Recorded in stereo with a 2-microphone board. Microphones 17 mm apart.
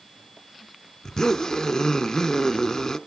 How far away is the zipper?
About 1.1 m.